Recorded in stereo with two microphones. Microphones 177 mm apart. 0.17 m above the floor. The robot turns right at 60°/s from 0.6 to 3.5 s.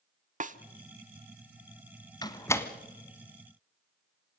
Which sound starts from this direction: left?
A door slam, at 2.2 s.